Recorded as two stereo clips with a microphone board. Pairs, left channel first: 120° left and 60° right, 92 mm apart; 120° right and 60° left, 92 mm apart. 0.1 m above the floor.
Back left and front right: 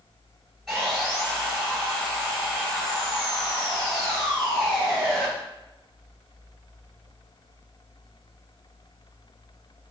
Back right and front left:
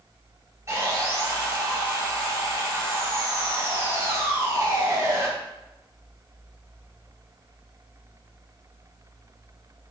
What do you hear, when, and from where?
0.7 s sawing: 30° left, 1.1 m